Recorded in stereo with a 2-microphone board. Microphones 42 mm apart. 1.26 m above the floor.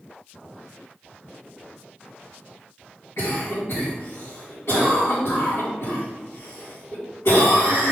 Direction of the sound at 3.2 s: 80° left.